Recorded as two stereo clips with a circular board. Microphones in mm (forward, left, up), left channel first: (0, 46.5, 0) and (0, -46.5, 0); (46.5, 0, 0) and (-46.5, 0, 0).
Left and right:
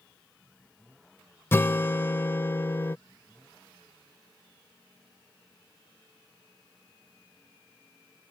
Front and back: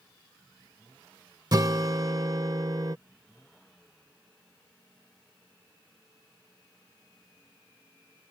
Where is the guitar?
150° left.